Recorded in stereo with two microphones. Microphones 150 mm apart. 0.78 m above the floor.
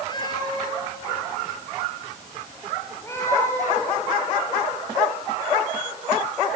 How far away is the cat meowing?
About 3.5 m.